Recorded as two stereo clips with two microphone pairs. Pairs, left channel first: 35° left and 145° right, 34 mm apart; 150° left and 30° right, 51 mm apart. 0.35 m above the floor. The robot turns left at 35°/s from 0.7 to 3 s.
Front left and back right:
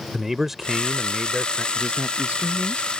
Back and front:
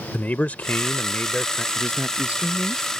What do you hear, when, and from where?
0.1 s a man speaking: 140° left; by 1.6 s 110° left
1.8 s a man speaking: 75° right; by 3.0 s 120° right